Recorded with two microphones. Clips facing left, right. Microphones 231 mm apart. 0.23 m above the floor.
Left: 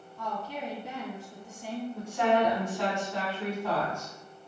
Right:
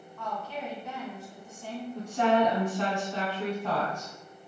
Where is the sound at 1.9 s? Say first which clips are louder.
Right 2 dB; 35° right (ahead or behind), 1.3 m.